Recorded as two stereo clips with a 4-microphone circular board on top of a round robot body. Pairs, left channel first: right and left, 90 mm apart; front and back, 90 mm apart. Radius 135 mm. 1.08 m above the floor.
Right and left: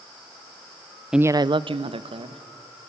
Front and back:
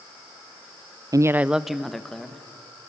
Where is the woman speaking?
175° left, 0.5 m; by 2.4 s 85° left, 1.9 m.